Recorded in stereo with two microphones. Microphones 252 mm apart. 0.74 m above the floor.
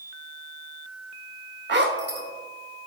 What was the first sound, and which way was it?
A zipper, 45° right (ahead or behind).